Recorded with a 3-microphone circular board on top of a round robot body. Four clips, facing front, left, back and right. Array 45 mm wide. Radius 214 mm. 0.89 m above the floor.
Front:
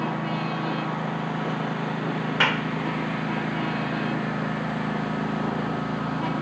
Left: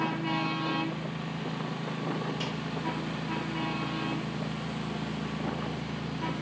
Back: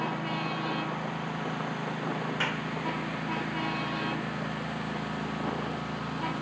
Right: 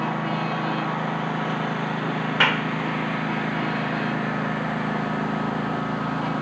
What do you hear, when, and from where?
0.0 s a lawn mower: 80° right; by 6.4 s 75° right
2.4 s a clap: 65° right